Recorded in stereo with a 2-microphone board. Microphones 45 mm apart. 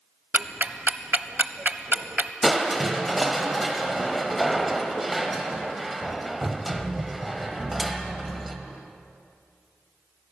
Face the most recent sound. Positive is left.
turn(degrees=0)  # may be behind; listen again after turning